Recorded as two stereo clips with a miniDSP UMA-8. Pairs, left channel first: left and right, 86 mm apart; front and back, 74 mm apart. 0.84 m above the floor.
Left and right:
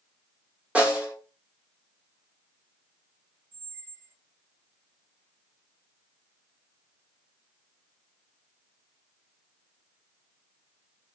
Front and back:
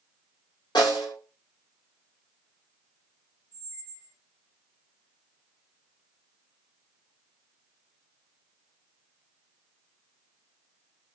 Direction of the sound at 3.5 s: 45° right.